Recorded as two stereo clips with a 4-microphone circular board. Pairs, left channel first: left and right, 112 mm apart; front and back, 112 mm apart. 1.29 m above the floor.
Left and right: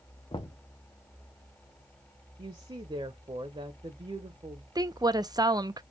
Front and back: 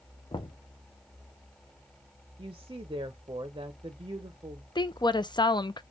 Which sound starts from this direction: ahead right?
A woman speaking, at 4.8 s.